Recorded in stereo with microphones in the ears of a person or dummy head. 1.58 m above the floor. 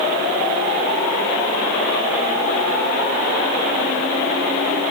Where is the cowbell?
No cowbell in this recording.